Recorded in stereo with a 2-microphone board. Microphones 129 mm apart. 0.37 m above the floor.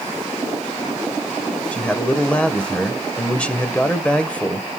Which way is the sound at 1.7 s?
10° left (ahead or behind).